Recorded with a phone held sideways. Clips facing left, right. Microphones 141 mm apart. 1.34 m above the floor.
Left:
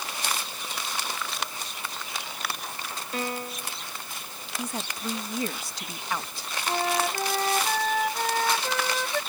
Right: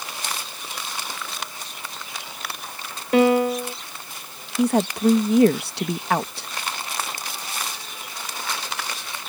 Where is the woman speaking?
65° right (ahead or behind).